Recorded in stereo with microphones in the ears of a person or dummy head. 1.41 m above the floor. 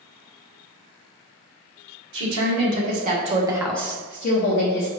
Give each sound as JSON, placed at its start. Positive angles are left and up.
{"t": 2.1, "sound": "a woman speaking", "side_deg": -65, "distance_m": 1.4}